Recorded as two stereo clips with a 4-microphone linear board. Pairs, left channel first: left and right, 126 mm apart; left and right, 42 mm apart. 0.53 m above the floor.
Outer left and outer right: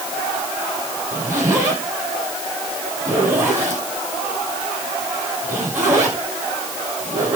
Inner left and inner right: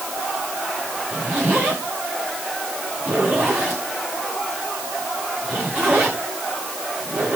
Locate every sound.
1.1 s a zipper: 20° right (ahead or behind), 10 m